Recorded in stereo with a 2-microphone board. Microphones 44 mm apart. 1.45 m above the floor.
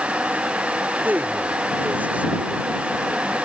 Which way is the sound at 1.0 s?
40° right (ahead or behind).